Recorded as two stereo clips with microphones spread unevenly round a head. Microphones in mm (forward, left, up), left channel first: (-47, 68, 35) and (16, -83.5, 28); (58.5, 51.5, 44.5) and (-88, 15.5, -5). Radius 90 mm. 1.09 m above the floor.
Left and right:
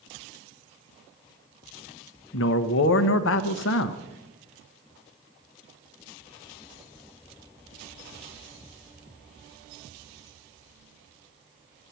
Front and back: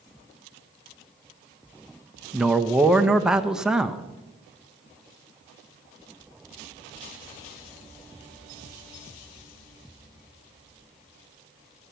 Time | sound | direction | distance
2.3 | a man speaking | 110° left | 0.8 m